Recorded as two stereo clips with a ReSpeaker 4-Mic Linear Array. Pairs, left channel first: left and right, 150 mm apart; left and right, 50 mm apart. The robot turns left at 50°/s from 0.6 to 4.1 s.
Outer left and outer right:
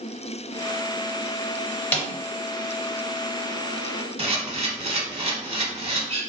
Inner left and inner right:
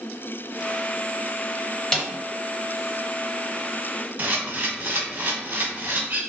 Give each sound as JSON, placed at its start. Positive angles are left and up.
{"t": 1.9, "sound": "a snare drum", "side_deg": 10, "distance_m": 0.6}
{"t": 4.2, "sound": "a camera shutter", "side_deg": -40, "distance_m": 0.7}